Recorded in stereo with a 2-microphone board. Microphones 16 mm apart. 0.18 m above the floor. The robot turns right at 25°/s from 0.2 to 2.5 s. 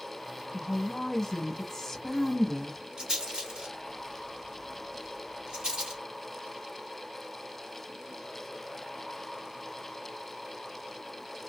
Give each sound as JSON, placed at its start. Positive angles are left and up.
{"t": 0.5, "sound": "a woman speaking", "side_deg": 25, "distance_m": 1.1}
{"t": 3.0, "sound": "a rattle", "side_deg": -60, "distance_m": 1.6}